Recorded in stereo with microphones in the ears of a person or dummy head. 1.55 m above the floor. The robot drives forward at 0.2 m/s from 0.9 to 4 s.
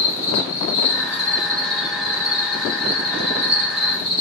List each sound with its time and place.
0.0 s an insect: 35° left (ahead or behind), 1.8 m; by 4.2 s 30° left (ahead or behind), 2 m